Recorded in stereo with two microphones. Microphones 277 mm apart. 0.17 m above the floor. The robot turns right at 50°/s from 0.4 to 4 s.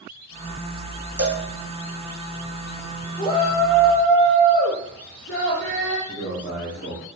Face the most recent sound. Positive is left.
turn(degrees=40)  # may be behind; listen again after turning